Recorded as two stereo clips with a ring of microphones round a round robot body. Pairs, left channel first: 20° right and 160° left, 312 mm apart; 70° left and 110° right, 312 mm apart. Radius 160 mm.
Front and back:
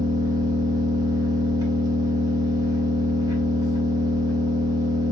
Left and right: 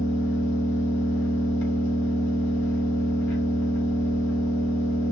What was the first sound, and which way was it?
An engine running, 85° left.